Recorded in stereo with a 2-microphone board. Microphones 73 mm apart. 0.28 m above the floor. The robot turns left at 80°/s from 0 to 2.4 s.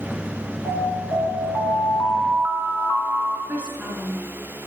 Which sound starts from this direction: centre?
A woman speaking, at 3.5 s.